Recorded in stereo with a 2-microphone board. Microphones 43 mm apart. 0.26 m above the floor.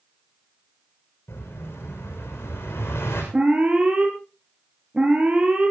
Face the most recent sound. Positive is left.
turn(degrees=-25)  # may be behind; listen again after turning